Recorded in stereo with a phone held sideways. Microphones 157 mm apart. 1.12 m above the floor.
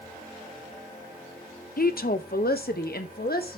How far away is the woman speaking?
About 0.9 m.